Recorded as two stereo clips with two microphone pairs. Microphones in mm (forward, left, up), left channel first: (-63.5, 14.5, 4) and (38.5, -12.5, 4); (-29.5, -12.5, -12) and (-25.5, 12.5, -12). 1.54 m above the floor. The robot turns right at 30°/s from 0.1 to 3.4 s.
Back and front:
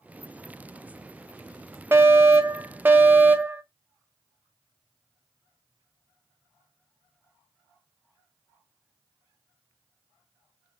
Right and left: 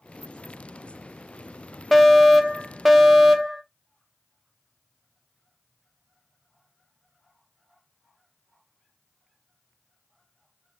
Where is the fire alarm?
20° right, 0.7 m; by 3.6 s 25° left, 0.7 m.